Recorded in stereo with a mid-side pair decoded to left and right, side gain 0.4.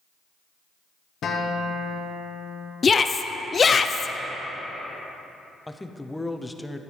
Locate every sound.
1.2 s a guitar: 65° left, 1.3 m
2.8 s a shout: 40° left, 0.7 m
5.7 s a man speaking: 10° left, 0.7 m